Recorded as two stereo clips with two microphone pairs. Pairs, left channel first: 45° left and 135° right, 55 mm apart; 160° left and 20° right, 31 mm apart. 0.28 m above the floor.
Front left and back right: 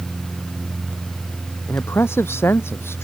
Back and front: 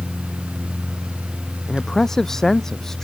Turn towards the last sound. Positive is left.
turn(degrees=85)